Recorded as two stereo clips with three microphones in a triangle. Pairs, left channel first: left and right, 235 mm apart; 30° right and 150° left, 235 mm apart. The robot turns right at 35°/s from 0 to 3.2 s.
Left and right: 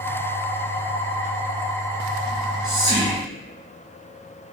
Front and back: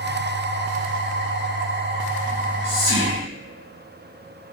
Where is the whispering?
65° right, 1.1 m; by 3.2 s 30° right, 1.1 m.